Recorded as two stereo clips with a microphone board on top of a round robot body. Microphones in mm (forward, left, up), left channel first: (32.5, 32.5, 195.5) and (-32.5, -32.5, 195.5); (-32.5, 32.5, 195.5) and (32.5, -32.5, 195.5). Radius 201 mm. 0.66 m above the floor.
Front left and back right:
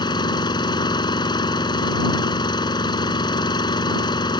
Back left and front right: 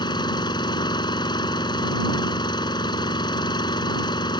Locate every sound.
0.0 s an engine running: 90° left